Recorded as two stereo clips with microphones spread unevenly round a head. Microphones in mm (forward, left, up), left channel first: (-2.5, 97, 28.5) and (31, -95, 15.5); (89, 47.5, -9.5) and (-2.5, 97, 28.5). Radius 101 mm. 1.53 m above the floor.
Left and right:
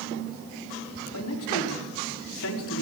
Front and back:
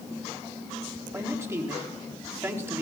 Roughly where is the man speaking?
Left.